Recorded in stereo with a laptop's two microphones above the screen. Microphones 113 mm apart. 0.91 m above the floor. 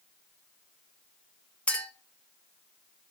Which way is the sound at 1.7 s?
10° left (ahead or behind).